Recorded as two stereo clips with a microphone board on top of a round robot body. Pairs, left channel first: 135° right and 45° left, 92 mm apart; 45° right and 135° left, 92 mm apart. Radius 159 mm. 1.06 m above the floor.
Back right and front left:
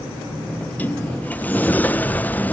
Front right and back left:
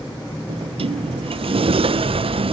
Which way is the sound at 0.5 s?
155° left.